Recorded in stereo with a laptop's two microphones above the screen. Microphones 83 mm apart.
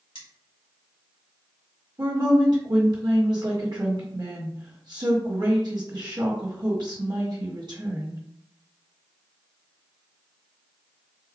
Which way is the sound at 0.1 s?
85° left.